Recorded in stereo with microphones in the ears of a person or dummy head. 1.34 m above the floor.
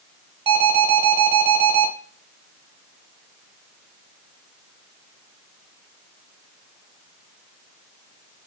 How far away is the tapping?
No tapping in this recording.